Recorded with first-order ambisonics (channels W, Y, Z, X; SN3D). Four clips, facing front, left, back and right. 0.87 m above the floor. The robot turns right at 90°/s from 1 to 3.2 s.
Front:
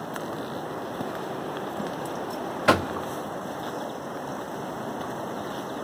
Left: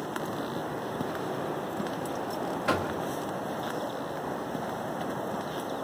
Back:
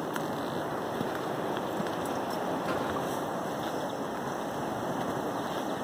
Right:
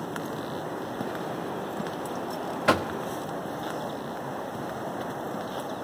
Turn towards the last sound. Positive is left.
turn(degrees=20)